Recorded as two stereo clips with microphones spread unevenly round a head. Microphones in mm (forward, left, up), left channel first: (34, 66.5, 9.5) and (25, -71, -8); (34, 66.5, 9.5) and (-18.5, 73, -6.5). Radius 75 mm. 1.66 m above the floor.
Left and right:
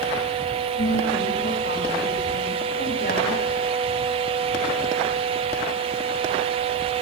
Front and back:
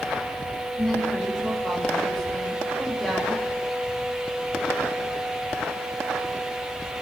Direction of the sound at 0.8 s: 70° left.